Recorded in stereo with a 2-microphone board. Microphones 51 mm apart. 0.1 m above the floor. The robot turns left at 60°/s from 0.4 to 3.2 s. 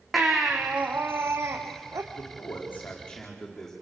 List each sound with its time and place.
0.1 s a baby crying: straight ahead, 3.5 m; by 2.0 s 95° right, 3.5 m
2.1 s a man speaking: 75° left, 8 m; by 3.7 s 10° left, 8 m